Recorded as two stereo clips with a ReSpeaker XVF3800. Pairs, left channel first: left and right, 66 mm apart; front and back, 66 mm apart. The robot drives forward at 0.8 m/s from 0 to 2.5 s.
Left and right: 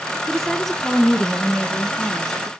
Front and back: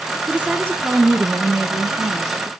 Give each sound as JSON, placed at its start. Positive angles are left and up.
{"t": 0.3, "sound": "a woman speaking", "azimuth_deg": 170, "distance_m": 1.1}